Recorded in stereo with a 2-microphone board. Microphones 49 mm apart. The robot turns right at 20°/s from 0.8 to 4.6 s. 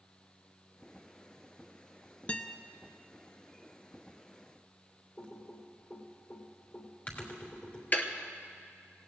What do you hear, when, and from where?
2.3 s a guitar: 25° left (ahead or behind), 0.7 m
5.2 s typing on a keyboard: 35° left (ahead or behind), 3 m
7.9 s ticking: 35° left (ahead or behind), 1.1 m